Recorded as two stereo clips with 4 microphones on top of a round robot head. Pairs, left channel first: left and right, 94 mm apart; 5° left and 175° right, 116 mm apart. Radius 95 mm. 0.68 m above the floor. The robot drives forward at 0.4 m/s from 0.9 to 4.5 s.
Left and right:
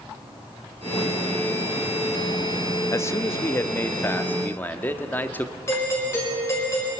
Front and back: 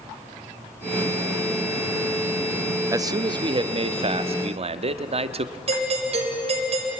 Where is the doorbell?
155° left, 5 m.